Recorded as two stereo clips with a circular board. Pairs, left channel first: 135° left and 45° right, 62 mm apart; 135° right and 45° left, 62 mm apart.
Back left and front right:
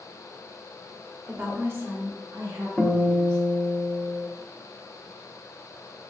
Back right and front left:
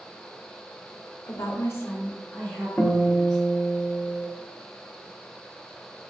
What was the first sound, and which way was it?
A woman speaking, 110° right.